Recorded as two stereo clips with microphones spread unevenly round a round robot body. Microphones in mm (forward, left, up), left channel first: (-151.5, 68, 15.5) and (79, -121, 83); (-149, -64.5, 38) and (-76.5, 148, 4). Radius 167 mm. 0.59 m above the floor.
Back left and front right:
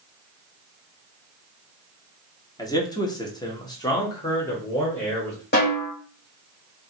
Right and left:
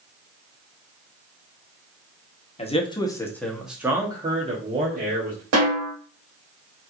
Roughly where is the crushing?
I don't hear crushing.